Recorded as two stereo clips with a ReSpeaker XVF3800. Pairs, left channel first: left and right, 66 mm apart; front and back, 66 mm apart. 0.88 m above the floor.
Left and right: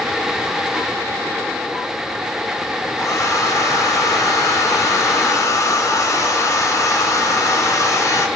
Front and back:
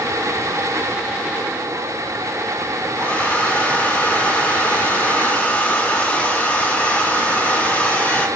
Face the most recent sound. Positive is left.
turn(degrees=65)